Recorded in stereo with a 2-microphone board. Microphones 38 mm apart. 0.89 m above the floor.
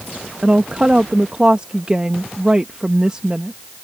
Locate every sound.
0.4 s a woman speaking: 25° right (ahead or behind)